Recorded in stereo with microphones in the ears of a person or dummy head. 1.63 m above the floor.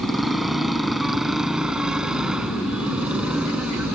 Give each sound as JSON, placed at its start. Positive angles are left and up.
{"t": 0.0, "sound": "a motorcycle", "side_deg": 5}